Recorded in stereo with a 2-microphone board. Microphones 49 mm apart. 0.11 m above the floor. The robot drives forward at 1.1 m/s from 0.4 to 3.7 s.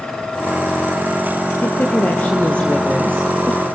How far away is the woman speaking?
About 1.9 m.